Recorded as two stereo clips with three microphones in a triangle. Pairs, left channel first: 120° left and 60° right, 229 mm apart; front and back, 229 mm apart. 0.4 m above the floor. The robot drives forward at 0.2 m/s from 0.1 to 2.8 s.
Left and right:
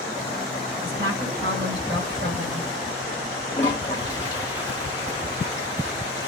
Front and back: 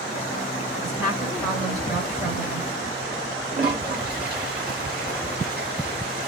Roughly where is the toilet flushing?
Behind.